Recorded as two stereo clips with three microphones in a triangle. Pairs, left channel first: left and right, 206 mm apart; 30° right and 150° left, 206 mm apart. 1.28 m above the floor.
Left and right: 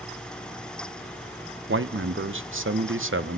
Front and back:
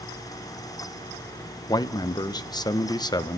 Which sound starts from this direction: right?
A man speaking, at 1.7 s.